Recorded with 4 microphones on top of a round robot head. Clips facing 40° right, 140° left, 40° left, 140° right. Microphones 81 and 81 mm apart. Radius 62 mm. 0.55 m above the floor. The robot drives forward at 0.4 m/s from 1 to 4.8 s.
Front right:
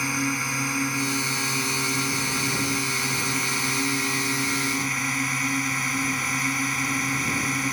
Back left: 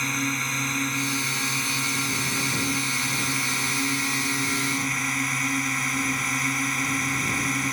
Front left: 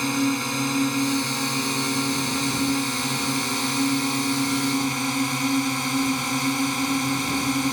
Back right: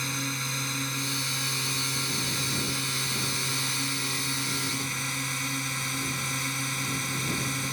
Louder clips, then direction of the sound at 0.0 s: Front right 1 dB, front left 11 dB; 45° left.